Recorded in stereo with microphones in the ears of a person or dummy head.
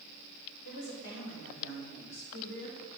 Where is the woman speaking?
85° left, 6 m; by 2.9 s 55° left (ahead or behind), 4.5 m.